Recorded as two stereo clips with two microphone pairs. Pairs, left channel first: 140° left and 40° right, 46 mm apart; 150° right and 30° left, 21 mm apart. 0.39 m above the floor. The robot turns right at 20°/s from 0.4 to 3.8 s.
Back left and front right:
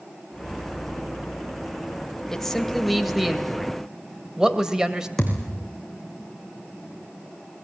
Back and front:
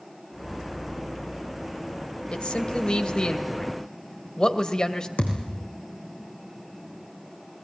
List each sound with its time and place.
2.3 s a man speaking: 140° right, 1.9 m; by 5.1 s 115° right, 1.9 m
5.2 s a thud: 135° right, 3.5 m